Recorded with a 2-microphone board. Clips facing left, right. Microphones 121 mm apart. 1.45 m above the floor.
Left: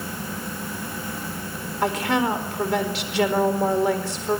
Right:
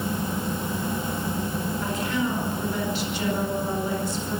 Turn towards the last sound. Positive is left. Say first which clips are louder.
# left 7 dB
turn(degrees=85)